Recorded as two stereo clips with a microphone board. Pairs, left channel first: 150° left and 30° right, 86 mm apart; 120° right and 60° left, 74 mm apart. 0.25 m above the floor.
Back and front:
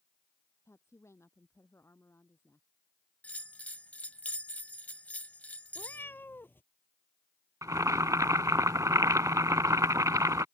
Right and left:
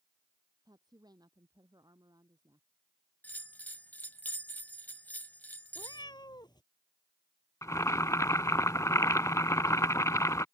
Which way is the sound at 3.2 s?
160° right.